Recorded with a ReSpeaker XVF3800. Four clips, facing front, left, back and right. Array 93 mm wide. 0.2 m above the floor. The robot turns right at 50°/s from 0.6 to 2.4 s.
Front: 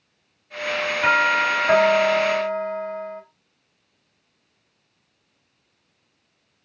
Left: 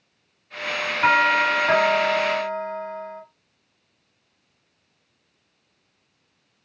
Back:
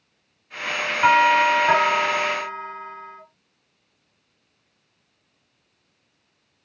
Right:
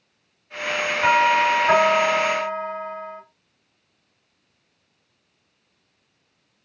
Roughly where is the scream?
No scream in this recording.